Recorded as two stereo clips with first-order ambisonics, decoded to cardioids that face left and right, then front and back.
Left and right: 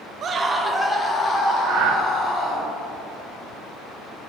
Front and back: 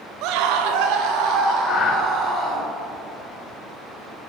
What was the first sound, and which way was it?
A scream, 150° right.